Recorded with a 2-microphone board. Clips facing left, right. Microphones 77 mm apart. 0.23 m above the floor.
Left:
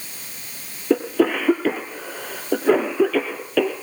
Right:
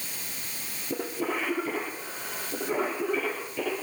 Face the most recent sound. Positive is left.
turn(degrees=75)  # may be behind; listen again after turning